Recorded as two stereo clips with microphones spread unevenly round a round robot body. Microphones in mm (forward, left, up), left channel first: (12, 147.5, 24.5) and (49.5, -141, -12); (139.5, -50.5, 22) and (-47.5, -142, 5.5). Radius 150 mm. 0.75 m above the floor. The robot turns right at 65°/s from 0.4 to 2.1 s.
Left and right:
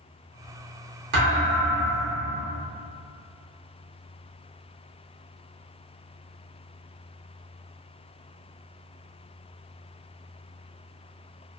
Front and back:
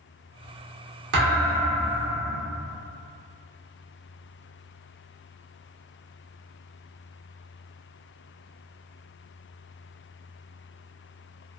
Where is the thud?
135° right, 0.6 m; by 2.4 s 75° right, 0.6 m.